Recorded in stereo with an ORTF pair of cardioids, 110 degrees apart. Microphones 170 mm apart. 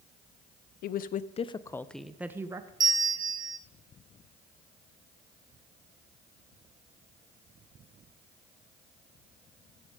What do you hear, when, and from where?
0.8 s a woman speaking: 65° left, 1.0 m; by 2.7 s 20° right, 1.5 m
2.8 s a bell: 25° right, 0.9 m